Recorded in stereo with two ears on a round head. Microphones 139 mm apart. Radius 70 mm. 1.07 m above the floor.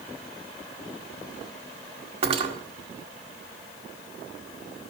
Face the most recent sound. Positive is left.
turn(degrees=-40)  # may be behind; listen again after turning